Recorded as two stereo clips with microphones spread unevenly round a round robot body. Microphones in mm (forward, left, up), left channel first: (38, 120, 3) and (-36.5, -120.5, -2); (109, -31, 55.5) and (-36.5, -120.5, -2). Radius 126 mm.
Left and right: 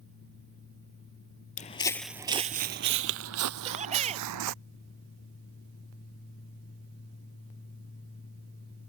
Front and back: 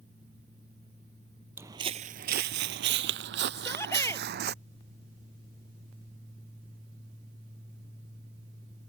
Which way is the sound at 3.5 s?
40° right.